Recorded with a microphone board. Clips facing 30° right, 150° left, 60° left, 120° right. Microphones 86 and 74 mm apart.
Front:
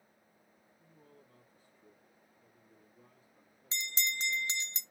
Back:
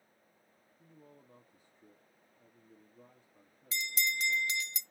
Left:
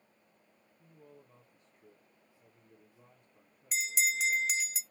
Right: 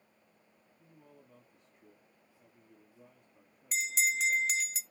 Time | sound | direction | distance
0.8 | a man speaking | 155° left | 1.9 m
3.7 | a bell | 30° right | 0.6 m